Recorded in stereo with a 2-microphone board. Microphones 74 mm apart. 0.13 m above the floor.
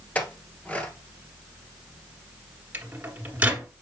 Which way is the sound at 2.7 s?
20° right (ahead or behind).